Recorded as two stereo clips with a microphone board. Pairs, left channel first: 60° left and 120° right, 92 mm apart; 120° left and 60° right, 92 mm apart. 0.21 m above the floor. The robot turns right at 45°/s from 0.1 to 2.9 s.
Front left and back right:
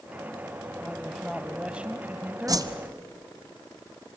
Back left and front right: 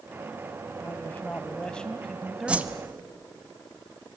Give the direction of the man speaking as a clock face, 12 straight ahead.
7 o'clock.